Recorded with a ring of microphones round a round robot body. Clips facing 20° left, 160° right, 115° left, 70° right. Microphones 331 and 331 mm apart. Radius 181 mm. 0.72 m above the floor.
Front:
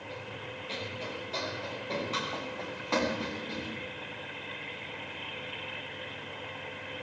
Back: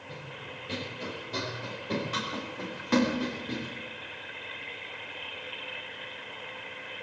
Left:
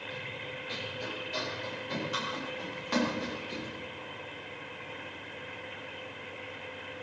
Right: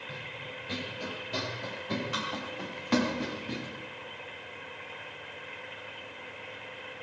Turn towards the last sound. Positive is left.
turn(degrees=-90)